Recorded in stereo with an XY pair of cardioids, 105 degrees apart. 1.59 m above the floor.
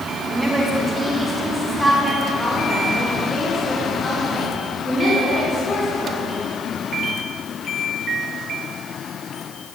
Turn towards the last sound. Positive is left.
turn(degrees=35)